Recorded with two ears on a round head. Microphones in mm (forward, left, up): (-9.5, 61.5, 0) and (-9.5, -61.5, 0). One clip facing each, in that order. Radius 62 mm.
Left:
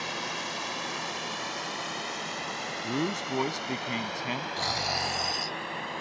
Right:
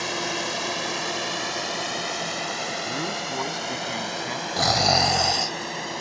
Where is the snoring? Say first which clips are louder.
Right 15 dB; 75° right (ahead or behind).